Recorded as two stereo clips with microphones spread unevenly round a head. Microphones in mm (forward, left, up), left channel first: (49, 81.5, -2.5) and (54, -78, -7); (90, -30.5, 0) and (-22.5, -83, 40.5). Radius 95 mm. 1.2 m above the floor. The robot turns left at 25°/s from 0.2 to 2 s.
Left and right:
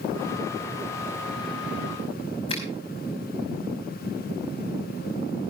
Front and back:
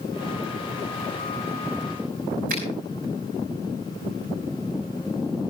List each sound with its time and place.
2.5 s a finger snap: 155° left, 5.5 m